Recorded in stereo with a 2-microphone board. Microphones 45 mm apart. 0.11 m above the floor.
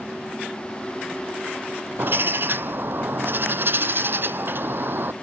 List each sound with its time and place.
2.0 s a bird: 50° right (ahead or behind), 0.6 m